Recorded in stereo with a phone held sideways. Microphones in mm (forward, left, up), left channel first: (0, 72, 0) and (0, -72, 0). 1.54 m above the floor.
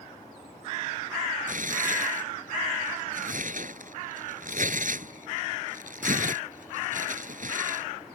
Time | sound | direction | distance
1.5 | tearing paper | 65° right (ahead or behind) | ?